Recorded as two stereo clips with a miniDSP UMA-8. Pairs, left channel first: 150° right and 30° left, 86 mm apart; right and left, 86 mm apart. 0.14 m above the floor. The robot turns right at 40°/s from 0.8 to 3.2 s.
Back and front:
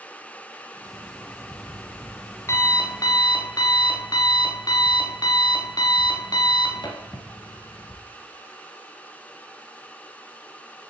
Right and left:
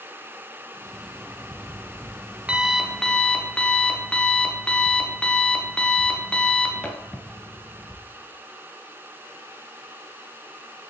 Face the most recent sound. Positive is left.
turn(degrees=-165)